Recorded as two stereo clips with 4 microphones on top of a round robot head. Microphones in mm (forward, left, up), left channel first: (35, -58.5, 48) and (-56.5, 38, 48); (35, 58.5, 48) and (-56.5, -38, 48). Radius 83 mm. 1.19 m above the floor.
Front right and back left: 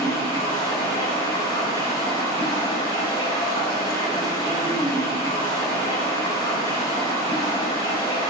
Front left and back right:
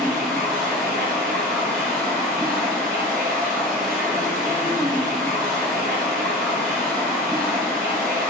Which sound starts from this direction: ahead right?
Running water, at 0.0 s.